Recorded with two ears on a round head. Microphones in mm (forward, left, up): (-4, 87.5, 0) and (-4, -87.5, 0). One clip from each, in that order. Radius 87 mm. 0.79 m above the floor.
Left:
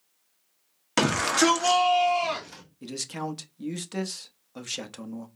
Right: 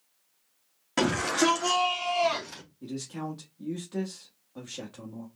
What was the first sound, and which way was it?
A shout, 45° left (ahead or behind).